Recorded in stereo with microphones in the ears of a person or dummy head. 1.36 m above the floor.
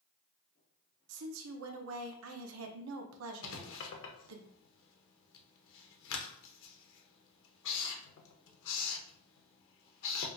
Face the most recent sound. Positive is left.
turn(degrees=70)  # may be behind; listen again after turning